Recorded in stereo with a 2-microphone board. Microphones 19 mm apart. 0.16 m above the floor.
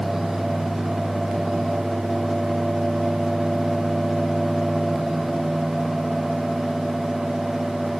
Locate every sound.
Only background noise.